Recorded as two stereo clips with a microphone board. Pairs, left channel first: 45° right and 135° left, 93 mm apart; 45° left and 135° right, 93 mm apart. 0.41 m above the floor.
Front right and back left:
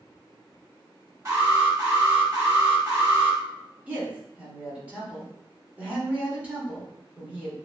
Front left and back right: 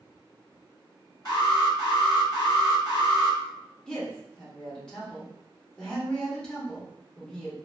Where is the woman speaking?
110° left, 0.8 m.